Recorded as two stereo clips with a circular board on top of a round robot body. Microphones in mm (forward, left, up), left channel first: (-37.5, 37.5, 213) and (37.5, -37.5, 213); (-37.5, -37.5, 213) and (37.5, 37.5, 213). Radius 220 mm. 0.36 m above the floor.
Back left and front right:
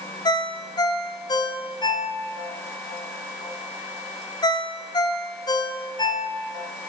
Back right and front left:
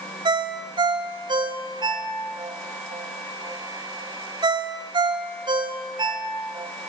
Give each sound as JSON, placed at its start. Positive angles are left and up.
{"t": 0.2, "sound": "a ringtone", "azimuth_deg": 85, "distance_m": 1.9}